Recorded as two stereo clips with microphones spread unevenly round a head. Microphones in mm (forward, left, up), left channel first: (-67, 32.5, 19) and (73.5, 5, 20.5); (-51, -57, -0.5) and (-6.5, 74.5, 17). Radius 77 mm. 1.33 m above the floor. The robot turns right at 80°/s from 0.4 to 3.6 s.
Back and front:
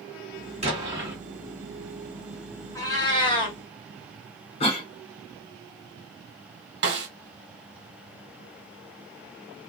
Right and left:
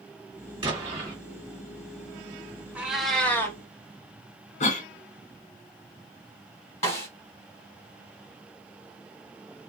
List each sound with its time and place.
0.6 s an explosion: 25° left, 1.6 m; by 1.2 s 65° left, 1.6 m
2.8 s a cat meowing: 125° left, 0.7 m; by 3.6 s 170° right, 0.7 m
4.6 s a cough: 140° right, 0.6 m
6.8 s a snare drum: 30° right, 1.0 m